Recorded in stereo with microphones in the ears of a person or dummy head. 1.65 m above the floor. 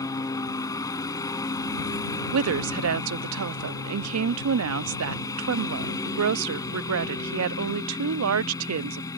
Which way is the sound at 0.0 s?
15° left (ahead or behind).